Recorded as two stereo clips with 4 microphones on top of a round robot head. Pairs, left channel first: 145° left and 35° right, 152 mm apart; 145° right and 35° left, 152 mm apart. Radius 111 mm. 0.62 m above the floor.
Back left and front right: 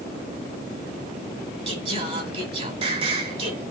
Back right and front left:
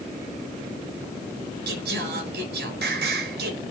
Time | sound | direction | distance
1.7 | singing | 20° left | 3.5 m